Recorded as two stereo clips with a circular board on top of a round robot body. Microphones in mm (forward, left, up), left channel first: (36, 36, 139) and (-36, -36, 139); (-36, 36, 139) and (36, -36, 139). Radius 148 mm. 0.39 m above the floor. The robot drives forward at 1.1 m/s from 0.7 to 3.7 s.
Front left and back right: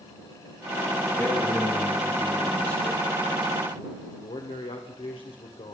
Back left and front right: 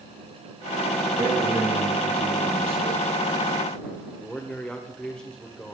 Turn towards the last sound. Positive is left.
turn(degrees=60)